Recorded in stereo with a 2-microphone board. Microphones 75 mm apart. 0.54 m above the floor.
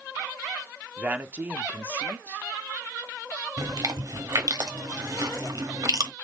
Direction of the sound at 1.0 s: 20° right (ahead or behind).